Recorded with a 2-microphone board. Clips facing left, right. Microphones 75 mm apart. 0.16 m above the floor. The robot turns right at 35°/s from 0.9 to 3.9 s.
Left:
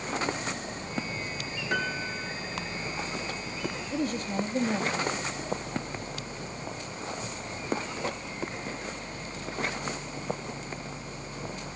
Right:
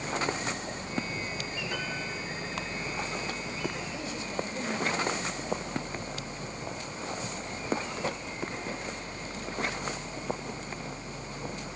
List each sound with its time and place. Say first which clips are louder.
1.7 s a piano: left 8 dB; 50° left (ahead or behind), 3 m; by 2.3 s 60° left (ahead or behind), 3 m
3.9 s a woman speaking: left 5 dB; 45° left (ahead or behind), 3.5 m